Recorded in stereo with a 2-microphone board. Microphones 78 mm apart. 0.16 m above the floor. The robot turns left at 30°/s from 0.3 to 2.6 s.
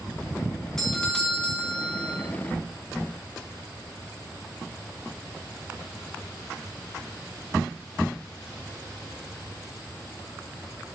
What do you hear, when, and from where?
0.8 s a doorbell: 5° left (ahead or behind), 2 m; by 2.2 s 25° left (ahead or behind), 2 m